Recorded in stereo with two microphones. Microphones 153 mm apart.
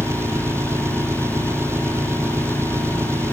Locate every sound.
0.0 s an engine running: 15° right (ahead or behind)